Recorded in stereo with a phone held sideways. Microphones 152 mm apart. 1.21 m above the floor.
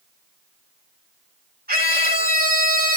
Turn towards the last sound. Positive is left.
turn(degrees=-80)